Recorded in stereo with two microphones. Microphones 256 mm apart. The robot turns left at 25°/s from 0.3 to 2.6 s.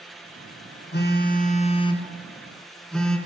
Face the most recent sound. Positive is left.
turn(degrees=0)